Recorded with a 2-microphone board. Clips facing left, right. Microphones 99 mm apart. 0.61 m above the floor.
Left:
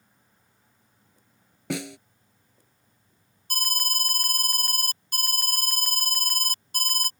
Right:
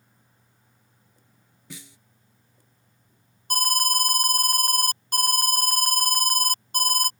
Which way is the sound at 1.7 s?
75° left (ahead or behind).